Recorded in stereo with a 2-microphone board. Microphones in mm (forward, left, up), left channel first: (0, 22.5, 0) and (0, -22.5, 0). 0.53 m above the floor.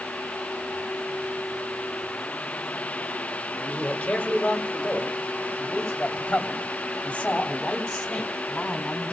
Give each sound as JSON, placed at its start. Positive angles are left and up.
{"t": 3.6, "sound": "a man speaking", "side_deg": 30, "distance_m": 1.2}